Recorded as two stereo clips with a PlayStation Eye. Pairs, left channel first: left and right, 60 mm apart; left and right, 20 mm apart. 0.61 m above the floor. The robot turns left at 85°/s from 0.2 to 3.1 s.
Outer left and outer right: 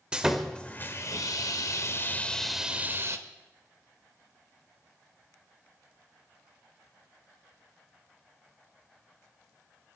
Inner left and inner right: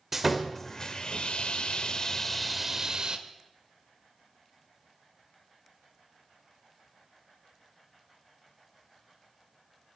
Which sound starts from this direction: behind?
Sawing, at 0.1 s.